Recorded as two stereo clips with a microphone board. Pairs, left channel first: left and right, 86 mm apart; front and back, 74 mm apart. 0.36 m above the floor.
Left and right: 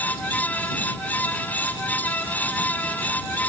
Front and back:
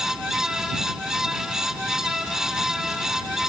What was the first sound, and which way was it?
Only background noise.